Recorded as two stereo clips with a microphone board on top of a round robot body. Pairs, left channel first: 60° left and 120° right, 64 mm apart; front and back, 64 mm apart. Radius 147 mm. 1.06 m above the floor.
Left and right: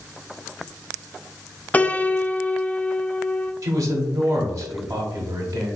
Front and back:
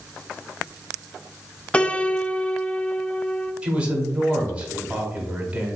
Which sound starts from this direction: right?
A man speaking, at 3.6 s.